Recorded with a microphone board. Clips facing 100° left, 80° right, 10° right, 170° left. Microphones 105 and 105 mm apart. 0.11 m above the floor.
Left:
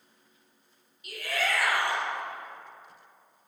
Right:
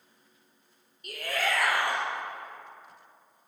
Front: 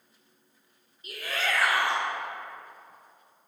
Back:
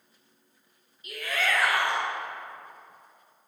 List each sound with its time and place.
1.0 s a shout: 60° right, 1.9 m